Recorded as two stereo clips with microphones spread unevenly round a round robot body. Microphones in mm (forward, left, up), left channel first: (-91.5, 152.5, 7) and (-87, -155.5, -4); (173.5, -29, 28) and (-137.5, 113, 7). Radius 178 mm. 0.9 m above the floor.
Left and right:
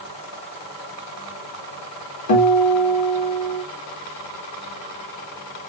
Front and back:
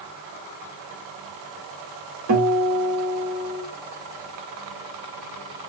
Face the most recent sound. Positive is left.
turn(degrees=105)